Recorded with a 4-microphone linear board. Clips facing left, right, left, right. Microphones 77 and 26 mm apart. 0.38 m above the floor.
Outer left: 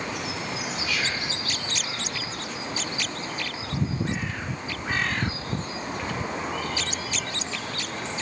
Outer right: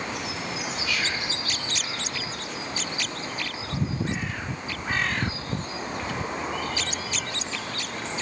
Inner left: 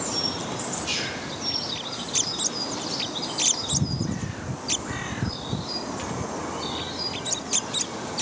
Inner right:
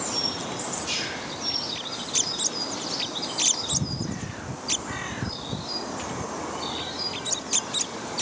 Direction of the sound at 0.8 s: 5° left (ahead or behind).